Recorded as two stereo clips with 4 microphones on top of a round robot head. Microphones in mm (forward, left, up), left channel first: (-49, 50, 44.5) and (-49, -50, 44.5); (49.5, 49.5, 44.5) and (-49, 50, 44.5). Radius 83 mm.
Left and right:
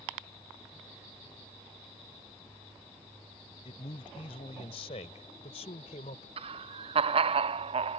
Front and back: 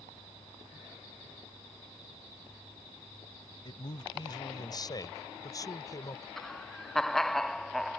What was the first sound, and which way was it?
A man speaking, 45° left.